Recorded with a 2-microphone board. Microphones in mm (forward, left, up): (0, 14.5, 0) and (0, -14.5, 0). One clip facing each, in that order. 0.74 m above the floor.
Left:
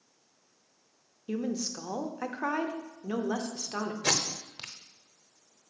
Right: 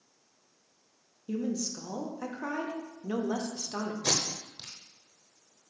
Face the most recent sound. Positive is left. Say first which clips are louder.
# left 2 dB
turn(degrees=50)  # may be behind; listen again after turning